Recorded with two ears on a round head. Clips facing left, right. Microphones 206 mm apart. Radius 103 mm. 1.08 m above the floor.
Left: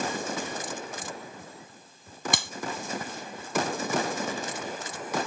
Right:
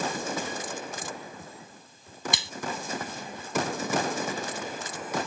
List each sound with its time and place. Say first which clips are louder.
2.3 s a clap: left 5 dB; 45° left (ahead or behind)